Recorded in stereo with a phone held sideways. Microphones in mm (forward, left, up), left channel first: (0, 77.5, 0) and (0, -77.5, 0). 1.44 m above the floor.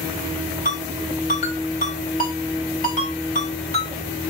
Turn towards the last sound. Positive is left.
turn(degrees=55)  # may be behind; listen again after turning